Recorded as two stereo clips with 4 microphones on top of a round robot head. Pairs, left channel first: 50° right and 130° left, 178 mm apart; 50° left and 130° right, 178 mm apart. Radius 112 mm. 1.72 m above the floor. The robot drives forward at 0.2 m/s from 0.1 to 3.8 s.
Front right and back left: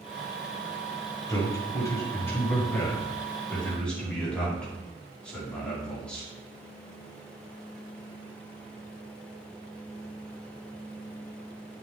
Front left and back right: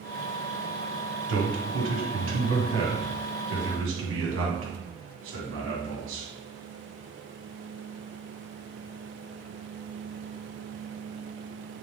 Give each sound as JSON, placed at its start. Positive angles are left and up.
{"t": 1.3, "sound": "a man speaking", "azimuth_deg": -120, "distance_m": 1.6}